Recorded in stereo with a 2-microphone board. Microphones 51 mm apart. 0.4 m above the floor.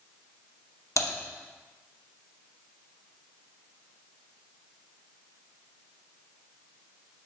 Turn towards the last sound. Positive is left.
turn(degrees=80)